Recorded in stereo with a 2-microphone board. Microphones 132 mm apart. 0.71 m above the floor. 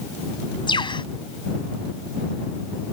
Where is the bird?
40° left (ahead or behind).